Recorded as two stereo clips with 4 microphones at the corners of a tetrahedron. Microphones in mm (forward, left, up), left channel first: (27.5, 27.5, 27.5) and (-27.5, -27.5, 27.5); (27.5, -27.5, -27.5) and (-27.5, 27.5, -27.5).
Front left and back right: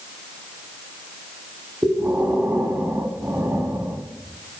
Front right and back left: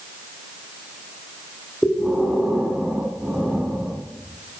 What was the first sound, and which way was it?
Breathing, 150° right.